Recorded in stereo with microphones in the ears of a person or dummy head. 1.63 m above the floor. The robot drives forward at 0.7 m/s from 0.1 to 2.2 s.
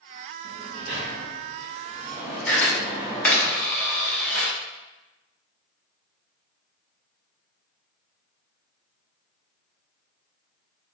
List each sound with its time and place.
0.4 s a sliding door: 25° right (ahead or behind), 0.9 m; by 3.5 s 15° right (ahead or behind), 1.3 m
2.5 s a camera shutter: 5° left (ahead or behind), 0.8 m